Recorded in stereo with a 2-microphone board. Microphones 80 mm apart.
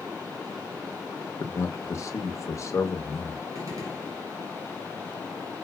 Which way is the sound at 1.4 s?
40° left (ahead or behind).